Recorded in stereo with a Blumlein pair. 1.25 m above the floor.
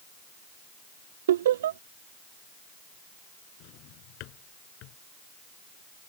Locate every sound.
1.3 s laughter: 60° right
3.6 s a drawer: 40° left